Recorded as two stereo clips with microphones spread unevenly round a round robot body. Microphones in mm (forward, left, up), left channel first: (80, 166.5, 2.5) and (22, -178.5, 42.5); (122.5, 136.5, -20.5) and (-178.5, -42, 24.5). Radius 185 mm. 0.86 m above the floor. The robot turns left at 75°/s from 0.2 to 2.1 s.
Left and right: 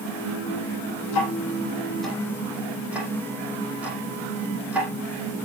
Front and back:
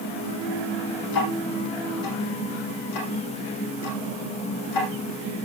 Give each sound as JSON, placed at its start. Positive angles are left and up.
{"t": 1.1, "sound": "ticking", "azimuth_deg": 65, "distance_m": 7.5}